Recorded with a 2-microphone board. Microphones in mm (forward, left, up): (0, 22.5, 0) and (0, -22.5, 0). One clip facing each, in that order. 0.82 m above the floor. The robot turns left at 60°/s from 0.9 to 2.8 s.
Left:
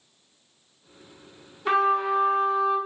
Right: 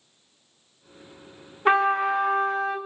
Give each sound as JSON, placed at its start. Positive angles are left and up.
{"t": 1.6, "sound": "a trumpet", "azimuth_deg": -50, "distance_m": 0.8}